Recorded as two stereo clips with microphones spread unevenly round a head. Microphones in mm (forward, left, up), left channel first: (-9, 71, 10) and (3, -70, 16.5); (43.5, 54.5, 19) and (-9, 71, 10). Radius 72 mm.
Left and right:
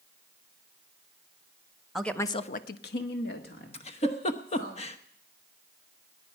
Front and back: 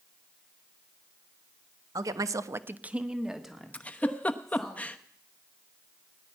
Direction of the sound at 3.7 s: 50° left.